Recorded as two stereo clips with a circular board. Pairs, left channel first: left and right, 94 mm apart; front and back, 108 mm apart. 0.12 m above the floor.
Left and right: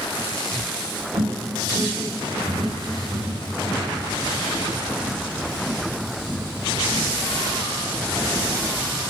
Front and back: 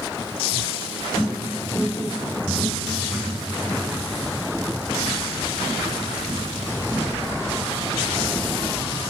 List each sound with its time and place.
1.1 s footsteps: 70° right, 1.7 m; by 8.0 s 40° right, 6 m